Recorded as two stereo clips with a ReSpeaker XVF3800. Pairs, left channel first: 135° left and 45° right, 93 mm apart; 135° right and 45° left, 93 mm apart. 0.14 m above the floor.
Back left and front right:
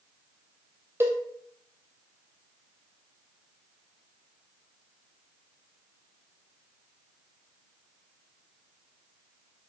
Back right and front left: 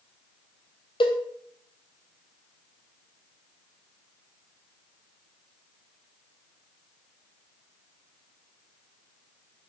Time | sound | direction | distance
1.0 | a cowbell | 110° right | 0.7 m